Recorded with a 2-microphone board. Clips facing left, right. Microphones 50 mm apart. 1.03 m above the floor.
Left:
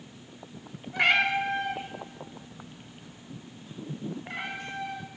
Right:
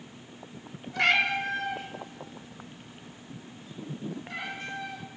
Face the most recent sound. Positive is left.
turn(degrees=45)  # may be behind; listen again after turning